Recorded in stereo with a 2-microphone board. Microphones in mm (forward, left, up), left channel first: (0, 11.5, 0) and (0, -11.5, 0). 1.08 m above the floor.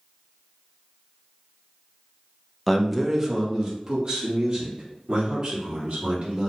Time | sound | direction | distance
2.7 | a man speaking | 5° left (ahead or behind) | 0.7 m